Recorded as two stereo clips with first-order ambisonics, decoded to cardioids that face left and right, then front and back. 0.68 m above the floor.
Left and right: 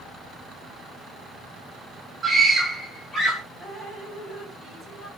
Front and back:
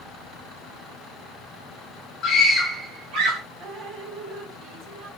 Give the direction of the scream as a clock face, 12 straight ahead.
12 o'clock.